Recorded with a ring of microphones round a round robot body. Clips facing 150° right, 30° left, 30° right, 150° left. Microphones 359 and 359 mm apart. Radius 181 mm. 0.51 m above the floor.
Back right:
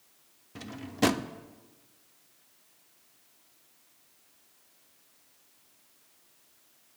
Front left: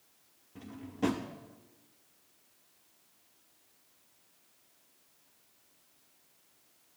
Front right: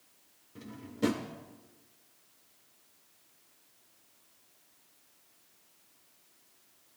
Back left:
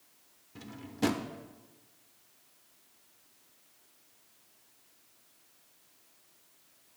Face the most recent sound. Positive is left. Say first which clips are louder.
# back right 5 dB, even
turn(degrees=-130)